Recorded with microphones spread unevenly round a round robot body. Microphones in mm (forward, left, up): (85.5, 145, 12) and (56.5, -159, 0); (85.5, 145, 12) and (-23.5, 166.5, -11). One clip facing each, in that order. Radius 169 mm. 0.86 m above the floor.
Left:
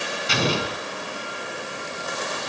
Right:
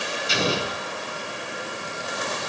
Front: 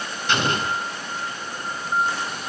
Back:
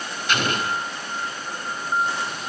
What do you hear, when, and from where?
0.3 s an explosion: 50° left, 3.5 m